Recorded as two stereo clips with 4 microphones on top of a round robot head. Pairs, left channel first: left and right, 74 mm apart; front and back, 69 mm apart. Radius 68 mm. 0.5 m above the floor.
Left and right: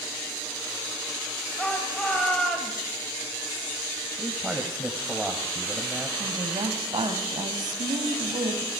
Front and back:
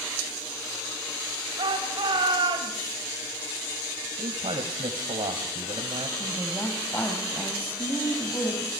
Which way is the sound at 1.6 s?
170° left.